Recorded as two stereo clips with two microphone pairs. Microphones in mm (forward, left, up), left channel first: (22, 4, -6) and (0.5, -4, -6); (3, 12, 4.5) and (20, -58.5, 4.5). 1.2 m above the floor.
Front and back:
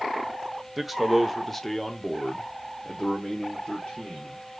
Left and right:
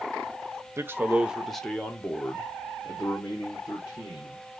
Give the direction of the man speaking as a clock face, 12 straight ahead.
3 o'clock.